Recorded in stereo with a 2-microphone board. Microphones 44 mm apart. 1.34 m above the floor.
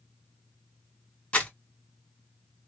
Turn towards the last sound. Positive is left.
turn(degrees=35)  # may be behind; listen again after turning